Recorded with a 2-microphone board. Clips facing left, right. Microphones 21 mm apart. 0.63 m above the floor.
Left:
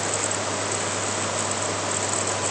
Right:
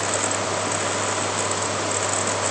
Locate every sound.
Only background noise.